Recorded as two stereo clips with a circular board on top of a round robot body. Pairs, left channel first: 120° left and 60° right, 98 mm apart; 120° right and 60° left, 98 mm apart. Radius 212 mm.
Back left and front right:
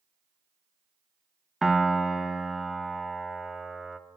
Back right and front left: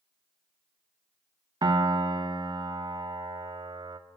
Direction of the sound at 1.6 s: 25° left.